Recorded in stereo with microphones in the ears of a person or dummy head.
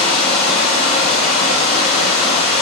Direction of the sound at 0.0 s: 30° left (ahead or behind).